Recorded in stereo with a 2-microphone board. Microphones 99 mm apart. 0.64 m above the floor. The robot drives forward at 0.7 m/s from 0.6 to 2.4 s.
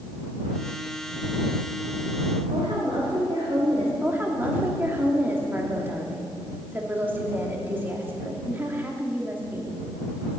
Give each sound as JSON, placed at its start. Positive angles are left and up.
{"t": 2.5, "sound": "a woman speaking", "side_deg": -75, "distance_m": 2.0}
{"t": 4.0, "sound": "a woman speaking", "side_deg": -20, "distance_m": 1.3}